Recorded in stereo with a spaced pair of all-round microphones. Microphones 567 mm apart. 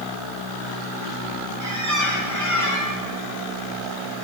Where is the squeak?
30° left (ahead or behind), 0.8 m.